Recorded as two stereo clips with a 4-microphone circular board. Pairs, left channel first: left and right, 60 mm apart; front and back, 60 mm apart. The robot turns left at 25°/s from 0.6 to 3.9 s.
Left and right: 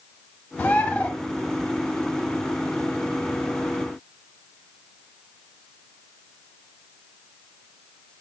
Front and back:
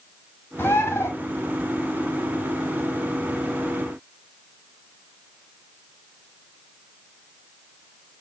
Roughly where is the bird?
Ahead left.